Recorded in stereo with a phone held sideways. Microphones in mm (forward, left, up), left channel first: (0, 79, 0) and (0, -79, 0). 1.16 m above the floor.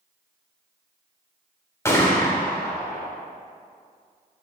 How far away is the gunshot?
About 1.2 m.